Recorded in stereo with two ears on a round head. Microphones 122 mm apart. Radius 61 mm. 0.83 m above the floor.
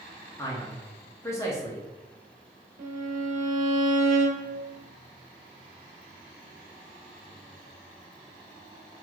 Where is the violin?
65° right (ahead or behind), 0.9 m.